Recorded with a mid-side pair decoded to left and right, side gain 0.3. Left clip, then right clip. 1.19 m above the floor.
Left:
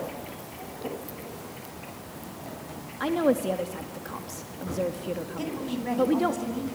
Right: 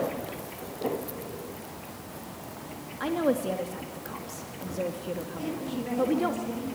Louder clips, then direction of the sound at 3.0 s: Left 2 dB; 30° left.